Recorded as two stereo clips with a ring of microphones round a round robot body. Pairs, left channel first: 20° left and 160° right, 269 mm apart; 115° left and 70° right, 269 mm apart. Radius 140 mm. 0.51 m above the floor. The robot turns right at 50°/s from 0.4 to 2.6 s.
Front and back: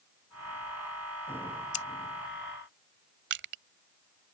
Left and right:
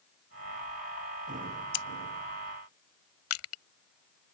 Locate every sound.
1.7 s scissors: 85° left; by 1.9 s 95° left
3.3 s crushing: 150° left